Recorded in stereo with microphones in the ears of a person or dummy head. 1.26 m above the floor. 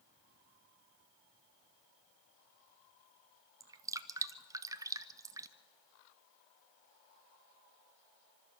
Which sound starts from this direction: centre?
Dripping, at 3.6 s.